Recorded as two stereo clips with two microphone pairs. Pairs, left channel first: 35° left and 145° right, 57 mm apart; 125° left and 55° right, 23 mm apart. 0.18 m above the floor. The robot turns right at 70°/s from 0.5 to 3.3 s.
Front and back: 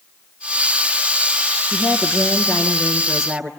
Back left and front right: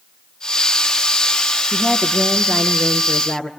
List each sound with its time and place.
1.7 s a woman speaking: 25° left, 3.5 m; by 3.5 s 135° left, 3.5 m